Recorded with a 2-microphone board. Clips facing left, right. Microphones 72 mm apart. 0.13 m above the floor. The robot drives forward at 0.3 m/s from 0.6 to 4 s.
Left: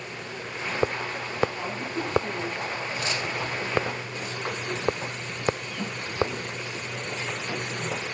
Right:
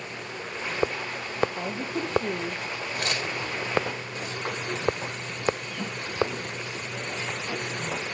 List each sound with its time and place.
1.6 s a woman speaking: 75° right (ahead or behind), 5.5 m; by 2.6 s 70° right (ahead or behind), 5.5 m
3.0 s tearing paper: 55° right (ahead or behind), 1.7 m